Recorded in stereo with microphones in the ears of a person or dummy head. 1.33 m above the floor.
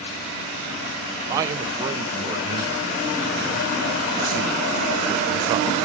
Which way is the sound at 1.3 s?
20° right (ahead or behind).